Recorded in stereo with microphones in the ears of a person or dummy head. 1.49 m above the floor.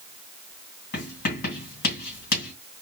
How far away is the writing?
About 2.5 m.